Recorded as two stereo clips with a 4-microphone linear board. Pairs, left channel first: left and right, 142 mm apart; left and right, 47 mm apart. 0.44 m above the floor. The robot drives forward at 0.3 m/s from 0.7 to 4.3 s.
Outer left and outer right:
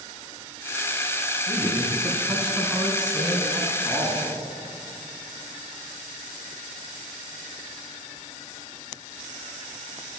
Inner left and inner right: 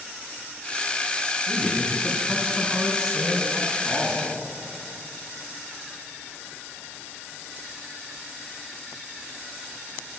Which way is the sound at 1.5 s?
Centre (ahead or behind).